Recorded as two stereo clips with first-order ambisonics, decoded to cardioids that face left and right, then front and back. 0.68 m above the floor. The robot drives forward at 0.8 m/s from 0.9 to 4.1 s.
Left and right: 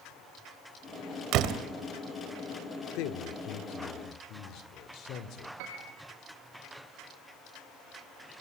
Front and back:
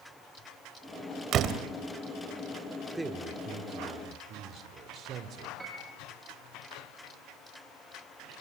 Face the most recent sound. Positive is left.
turn(degrees=-100)